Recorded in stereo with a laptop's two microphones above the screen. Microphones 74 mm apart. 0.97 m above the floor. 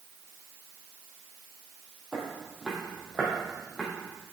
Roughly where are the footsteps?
Centre.